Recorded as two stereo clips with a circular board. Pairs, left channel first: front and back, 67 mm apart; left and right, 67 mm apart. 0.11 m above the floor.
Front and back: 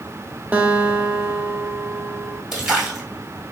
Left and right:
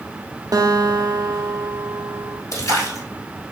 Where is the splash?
100° left, 1.5 m.